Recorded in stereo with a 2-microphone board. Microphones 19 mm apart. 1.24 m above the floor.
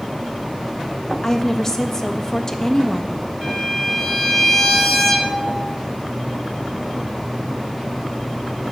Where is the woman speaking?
25° left (ahead or behind), 1.2 m.